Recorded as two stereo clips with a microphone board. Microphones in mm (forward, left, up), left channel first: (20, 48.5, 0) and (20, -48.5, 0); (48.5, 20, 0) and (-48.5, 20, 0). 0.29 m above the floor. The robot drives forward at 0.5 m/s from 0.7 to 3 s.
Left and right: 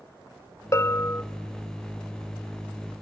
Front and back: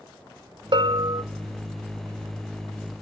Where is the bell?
145° left, 0.6 m; by 1.2 s 155° left, 0.8 m.